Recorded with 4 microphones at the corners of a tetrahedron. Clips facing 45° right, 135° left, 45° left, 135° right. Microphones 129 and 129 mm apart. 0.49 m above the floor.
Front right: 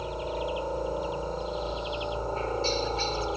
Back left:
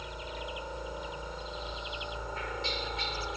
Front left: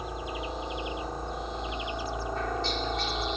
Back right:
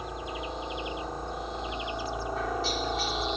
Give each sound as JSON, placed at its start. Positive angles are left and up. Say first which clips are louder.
{"t": 0.0, "sound": "a helicopter", "louder": "front right 9 dB, front left 1 dB", "azimuth_deg": -40}